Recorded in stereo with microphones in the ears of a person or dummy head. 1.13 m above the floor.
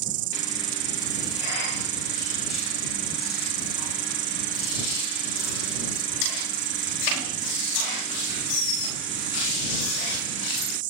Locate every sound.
0.0 s an insect: 40° right (ahead or behind)